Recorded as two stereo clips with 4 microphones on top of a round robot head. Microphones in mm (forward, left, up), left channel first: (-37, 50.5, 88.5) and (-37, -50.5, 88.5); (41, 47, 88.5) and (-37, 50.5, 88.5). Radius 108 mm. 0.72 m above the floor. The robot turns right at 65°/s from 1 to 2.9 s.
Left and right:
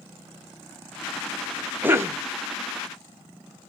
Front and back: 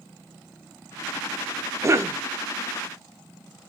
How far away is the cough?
About 0.7 m.